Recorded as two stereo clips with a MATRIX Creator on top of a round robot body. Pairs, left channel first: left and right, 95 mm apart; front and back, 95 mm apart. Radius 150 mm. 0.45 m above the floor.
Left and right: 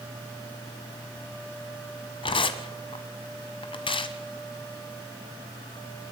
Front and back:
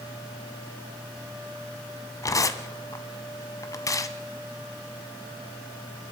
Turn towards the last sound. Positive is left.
turn(degrees=55)